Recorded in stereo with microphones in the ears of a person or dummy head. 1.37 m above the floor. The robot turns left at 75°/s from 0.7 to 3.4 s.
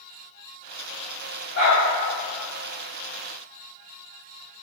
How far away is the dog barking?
About 1.5 m.